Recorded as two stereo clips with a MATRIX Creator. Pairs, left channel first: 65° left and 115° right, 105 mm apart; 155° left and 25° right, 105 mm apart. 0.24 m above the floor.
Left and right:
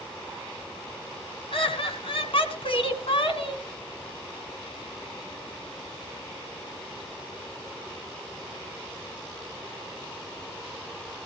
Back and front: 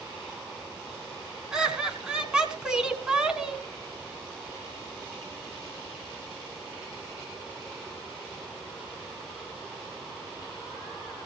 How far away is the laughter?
About 2 m.